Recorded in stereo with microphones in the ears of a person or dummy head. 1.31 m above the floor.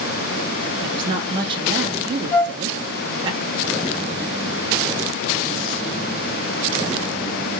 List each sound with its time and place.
0.8 s a woman speaking: 25° right (ahead or behind), 0.5 m
2.3 s a flute: 20° left (ahead or behind), 1.9 m